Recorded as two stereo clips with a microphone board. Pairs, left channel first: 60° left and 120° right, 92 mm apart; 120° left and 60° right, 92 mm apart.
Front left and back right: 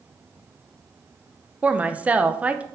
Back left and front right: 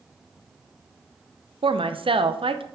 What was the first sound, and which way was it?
A woman speaking, 45° right.